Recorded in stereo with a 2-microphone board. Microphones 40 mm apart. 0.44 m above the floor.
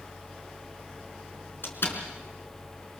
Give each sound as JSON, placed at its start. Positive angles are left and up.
{"t": 1.6, "sound": "a door slam", "side_deg": 65, "distance_m": 3.5}